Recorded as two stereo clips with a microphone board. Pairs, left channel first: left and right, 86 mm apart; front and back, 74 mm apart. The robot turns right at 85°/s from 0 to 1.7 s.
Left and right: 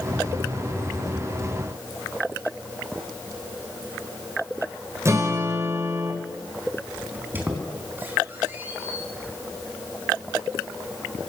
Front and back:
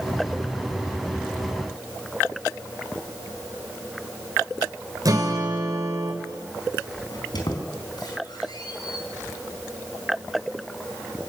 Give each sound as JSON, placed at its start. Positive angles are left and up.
{"t": 5.0, "sound": "a guitar", "azimuth_deg": -145, "distance_m": 3.0}
{"t": 7.1, "sound": "a squeak", "azimuth_deg": -25, "distance_m": 3.5}